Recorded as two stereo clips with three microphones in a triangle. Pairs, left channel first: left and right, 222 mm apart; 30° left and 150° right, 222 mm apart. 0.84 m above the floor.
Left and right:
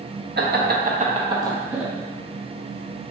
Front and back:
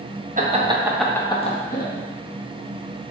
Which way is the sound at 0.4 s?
105° right.